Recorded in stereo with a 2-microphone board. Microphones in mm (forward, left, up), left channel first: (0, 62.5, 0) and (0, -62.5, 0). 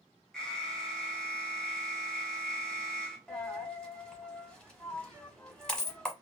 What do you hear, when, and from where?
0.3 s an alarm: 5° left (ahead or behind), 0.8 m
3.3 s a dropped coin: 5° left (ahead or behind), 0.9 m